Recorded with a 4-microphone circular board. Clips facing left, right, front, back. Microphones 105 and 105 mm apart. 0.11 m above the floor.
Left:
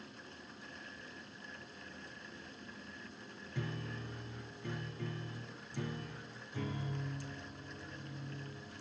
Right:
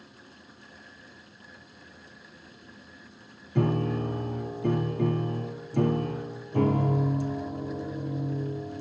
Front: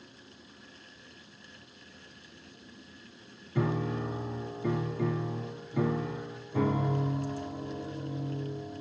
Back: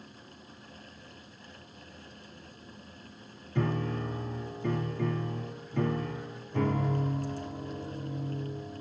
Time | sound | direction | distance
3.5 | a piano | 80° right | ?